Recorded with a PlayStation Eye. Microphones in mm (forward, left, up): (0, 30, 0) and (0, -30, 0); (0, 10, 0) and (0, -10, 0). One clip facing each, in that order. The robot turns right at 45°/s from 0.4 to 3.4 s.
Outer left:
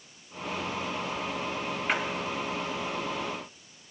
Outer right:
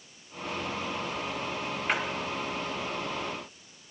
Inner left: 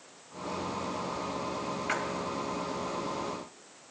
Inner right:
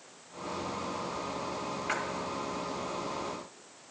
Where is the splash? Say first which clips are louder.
Even, inner left 1 dB; centre (ahead or behind), 1.6 m; by 2.0 s 5° right (ahead or behind), 1.6 m.